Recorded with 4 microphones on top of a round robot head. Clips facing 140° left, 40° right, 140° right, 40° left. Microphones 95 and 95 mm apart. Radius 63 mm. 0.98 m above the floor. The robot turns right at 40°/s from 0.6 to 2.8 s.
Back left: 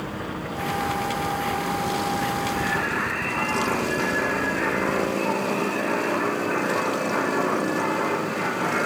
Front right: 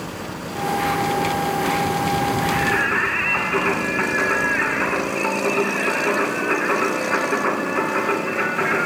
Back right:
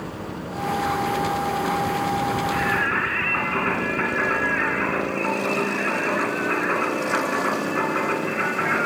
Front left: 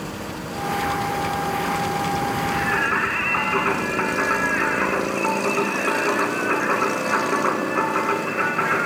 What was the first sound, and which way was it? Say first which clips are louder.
Singing: front right 5 dB, front left 1 dB; 35° right.